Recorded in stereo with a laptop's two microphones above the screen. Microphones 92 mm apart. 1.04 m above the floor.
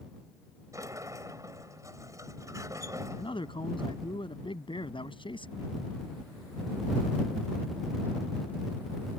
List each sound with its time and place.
0.7 s a sliding door: 35° right (ahead or behind)
3.2 s a man speaking: 65° left (ahead or behind)